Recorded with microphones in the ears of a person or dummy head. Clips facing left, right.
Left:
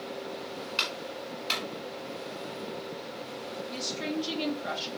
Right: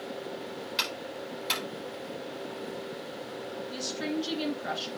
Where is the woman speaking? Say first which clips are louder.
Right 1 dB; 10° right (ahead or behind), 2.5 m.